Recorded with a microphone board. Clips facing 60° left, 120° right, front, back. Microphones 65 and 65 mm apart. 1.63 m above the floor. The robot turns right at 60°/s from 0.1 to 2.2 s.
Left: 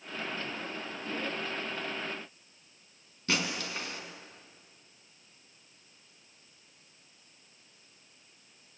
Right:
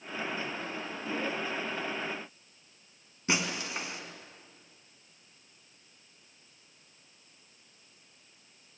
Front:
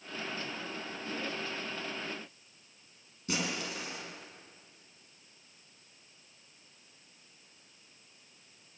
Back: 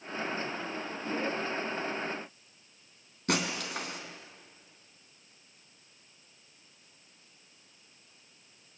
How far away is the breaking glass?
About 3.5 m.